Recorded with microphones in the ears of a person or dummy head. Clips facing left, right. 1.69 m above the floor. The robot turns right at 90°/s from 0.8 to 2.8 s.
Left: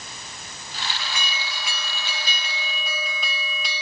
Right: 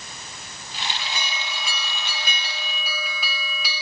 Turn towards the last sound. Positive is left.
turn(degrees=0)